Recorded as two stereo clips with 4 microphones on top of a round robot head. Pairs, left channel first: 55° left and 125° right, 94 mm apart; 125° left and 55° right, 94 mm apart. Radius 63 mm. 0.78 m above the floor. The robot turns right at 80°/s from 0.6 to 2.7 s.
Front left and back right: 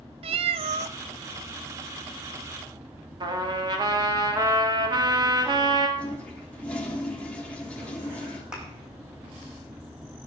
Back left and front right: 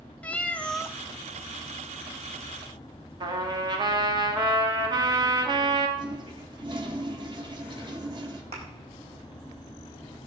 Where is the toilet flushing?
25° right, 2 m.